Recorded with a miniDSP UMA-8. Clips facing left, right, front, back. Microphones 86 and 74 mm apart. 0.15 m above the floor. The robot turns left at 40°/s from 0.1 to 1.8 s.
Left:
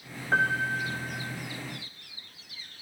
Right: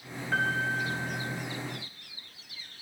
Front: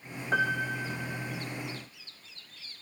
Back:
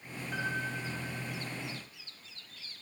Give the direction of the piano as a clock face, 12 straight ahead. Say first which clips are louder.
Left 3 dB, front 7 dB; 11 o'clock.